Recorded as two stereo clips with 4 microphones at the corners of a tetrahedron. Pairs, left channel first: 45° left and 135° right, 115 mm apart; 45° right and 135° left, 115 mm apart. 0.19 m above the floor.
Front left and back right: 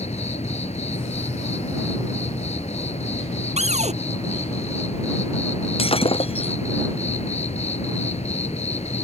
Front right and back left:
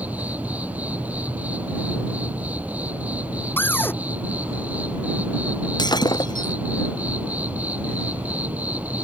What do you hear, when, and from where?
0.0 s an insect: 60° left
3.6 s a cupboard door: 120° right
5.8 s breaking glass: 10° left